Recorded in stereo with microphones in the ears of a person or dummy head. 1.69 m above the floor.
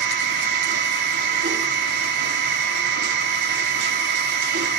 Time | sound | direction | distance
0.0 | a machine running | 55° right (ahead or behind) | 1.2 m